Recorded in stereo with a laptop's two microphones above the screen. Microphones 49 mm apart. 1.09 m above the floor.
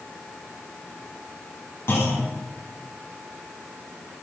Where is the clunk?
60° left (ahead or behind), 6.5 m.